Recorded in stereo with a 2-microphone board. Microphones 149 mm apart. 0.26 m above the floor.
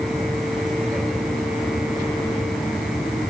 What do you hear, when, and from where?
Only background noise.